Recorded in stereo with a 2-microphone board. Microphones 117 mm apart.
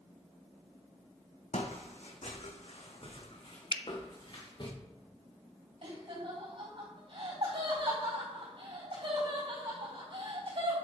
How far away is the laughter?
About 3.5 m.